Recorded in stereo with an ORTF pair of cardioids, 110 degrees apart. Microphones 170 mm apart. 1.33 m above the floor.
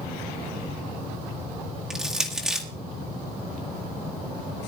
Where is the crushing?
5° right, 2 m.